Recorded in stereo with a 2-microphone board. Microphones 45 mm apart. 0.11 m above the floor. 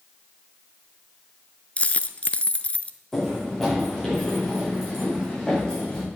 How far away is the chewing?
I don't hear chewing.